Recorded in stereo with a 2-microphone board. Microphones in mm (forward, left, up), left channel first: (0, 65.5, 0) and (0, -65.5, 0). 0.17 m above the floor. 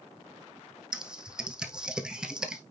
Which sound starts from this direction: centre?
Typing on a keyboard, at 0.9 s.